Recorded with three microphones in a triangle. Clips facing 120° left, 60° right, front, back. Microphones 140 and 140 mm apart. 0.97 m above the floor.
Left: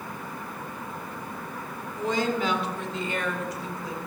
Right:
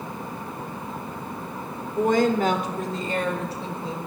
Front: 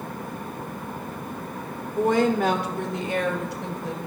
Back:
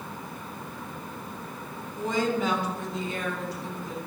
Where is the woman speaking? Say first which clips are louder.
Right 7 dB, front 6 dB; 30° right, 3 m; by 4.1 s 5° left, 4.5 m.